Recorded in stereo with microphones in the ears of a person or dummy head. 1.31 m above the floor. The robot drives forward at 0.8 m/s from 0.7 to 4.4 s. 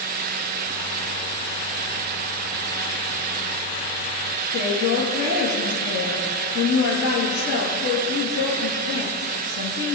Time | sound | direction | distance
4.5 | a woman speaking | 85° left | 1.6 m